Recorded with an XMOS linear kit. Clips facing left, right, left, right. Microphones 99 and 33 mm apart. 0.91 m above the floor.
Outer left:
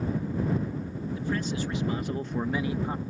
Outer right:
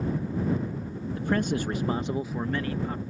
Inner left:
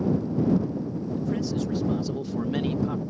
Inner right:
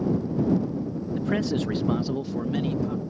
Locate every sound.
1.1 s a man speaking: 50° right (ahead or behind); by 3.0 s 20° left (ahead or behind)